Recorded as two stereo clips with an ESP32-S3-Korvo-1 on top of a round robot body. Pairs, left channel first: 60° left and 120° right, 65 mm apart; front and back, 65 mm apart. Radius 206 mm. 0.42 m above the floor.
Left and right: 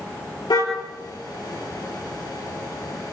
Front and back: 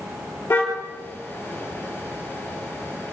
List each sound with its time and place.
0.5 s a car horn: 60° left, 7.5 m